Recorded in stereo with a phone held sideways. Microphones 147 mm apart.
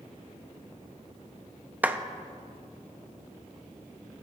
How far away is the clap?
About 0.7 m.